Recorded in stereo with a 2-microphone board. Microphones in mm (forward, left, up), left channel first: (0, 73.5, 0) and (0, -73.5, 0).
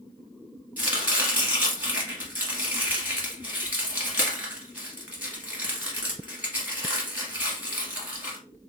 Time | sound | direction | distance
0.8 | chopping | 10° right (ahead or behind) | 1.5 m